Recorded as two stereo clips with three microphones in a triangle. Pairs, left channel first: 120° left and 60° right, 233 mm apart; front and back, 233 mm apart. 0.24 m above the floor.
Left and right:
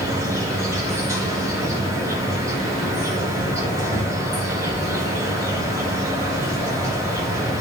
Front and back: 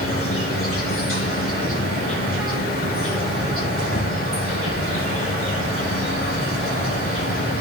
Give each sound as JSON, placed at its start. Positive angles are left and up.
{"t": 0.0, "sound": "an insect", "azimuth_deg": 15, "distance_m": 7.5}